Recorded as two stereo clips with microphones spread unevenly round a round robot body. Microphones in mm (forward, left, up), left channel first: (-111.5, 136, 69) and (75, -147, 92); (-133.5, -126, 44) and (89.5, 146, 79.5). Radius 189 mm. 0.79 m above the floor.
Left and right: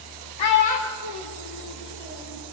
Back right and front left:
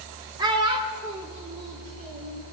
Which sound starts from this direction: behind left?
A child speaking, at 0.4 s.